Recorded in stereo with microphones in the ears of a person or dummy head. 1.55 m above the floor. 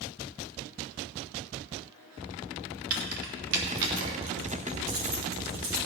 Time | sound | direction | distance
2.9 | keys jangling | 55° right (ahead or behind) | 2 m